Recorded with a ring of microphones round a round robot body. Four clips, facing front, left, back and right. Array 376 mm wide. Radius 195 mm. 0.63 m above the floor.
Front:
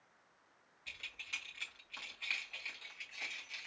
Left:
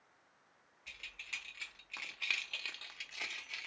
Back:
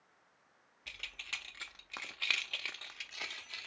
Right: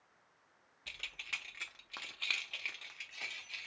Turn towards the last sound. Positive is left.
turn(degrees=145)